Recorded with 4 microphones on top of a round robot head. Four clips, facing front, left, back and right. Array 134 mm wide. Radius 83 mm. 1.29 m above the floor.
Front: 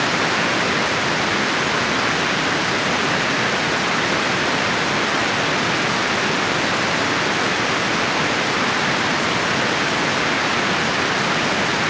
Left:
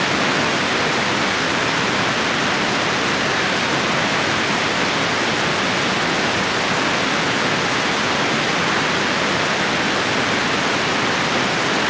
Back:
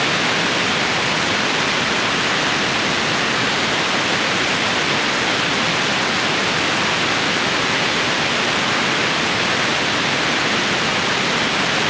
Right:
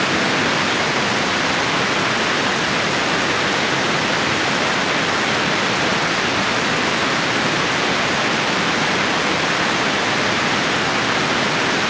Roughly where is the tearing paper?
I don't hear tearing paper.